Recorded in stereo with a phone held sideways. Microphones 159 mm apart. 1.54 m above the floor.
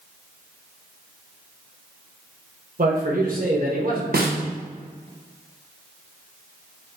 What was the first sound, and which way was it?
A man speaking, 60° right (ahead or behind).